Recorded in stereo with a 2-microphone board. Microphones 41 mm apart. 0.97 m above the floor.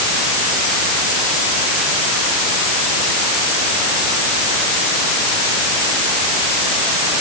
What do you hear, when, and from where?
Only background noise.